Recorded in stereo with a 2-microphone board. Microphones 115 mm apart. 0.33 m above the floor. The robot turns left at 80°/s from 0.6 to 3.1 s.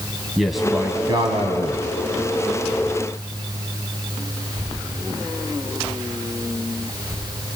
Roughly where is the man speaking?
Ahead.